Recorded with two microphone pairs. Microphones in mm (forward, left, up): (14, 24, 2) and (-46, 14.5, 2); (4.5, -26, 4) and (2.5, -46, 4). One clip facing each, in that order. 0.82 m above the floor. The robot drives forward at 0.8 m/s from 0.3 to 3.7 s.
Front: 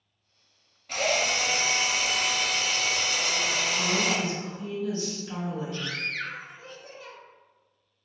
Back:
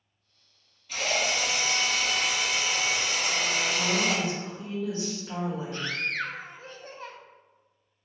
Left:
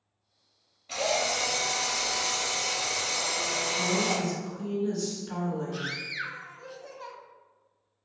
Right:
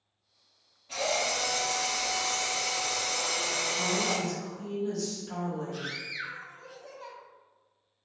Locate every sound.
0.9 s a drill: 35° left, 1.3 m; by 4.2 s 155° left, 1.5 m
3.8 s a woman speaking: 165° left, 1.5 m
5.7 s a scream: 145° left, 0.6 m